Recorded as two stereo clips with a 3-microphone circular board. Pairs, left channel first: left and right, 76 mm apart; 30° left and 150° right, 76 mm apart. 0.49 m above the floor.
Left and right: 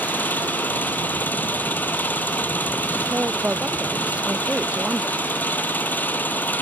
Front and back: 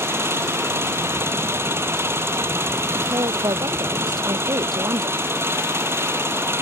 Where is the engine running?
155° left.